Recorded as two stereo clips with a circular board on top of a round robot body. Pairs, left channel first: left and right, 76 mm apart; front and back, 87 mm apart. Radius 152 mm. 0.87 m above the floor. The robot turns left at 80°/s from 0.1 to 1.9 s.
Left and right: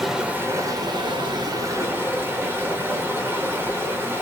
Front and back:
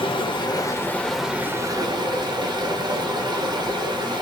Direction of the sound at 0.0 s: 5° right.